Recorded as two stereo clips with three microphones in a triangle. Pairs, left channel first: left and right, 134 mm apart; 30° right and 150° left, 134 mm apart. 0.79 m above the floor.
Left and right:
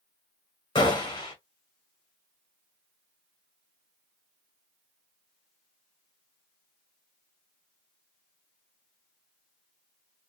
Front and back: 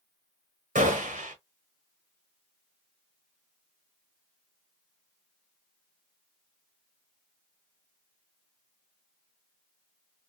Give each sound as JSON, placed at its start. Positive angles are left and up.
{"t": 0.8, "sound": "a gunshot", "azimuth_deg": 145, "distance_m": 1.0}